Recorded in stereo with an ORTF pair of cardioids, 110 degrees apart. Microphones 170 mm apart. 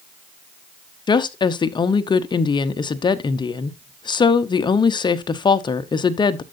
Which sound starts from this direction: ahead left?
A woman speaking, at 1.1 s.